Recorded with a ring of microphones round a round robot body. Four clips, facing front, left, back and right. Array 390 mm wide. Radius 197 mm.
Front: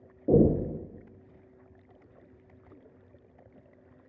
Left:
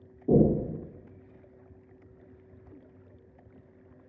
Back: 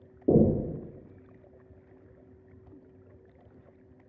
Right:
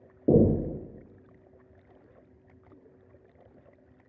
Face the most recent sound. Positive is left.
turn(degrees=-120)